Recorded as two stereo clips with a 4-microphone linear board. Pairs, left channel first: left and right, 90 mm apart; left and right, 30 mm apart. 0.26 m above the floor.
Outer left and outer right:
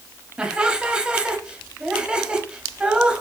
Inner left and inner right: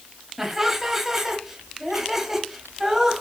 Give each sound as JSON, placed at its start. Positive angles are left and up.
{"t": 0.4, "sound": "laughter", "side_deg": -10, "distance_m": 1.0}